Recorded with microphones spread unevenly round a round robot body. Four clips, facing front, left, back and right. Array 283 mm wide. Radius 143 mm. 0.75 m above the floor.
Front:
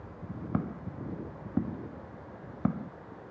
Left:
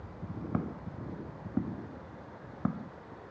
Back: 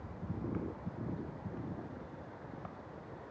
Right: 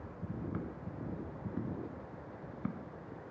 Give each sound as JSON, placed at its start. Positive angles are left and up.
{"t": 0.5, "sound": "footsteps", "azimuth_deg": 35}